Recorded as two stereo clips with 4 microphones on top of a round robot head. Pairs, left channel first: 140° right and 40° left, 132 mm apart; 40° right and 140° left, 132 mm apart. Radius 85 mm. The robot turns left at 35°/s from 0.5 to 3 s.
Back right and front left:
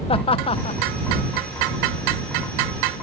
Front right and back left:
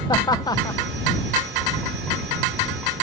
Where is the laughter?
95° right; by 0.8 s 110° right.